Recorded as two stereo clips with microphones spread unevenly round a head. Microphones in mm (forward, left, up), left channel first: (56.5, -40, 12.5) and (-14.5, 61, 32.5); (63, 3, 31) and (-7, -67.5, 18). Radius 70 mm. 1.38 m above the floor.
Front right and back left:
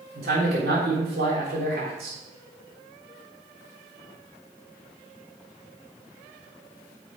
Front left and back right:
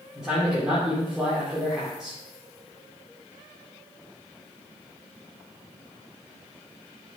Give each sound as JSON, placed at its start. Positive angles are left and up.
{"t": 0.1, "sound": "a man speaking", "azimuth_deg": 140, "distance_m": 4.0}